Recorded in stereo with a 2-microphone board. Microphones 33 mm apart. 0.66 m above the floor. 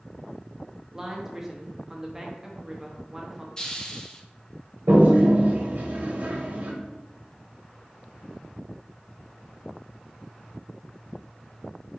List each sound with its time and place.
0.9 s a woman speaking: 10° right (ahead or behind), 0.7 m
3.6 s a hiss: 25° left (ahead or behind), 0.5 m
4.9 s a toilet flushing: 65° right (ahead or behind), 0.9 m